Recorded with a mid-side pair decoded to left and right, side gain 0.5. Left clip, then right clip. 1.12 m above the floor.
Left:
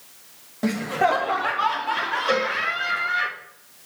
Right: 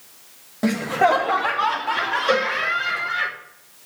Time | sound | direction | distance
0.6 | laughter | 15° right | 1.4 m
2.3 | a cowbell | 20° right | 6.5 m